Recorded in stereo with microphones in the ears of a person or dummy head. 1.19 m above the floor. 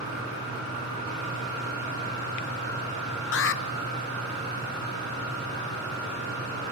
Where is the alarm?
60° left (ahead or behind), 1.7 m.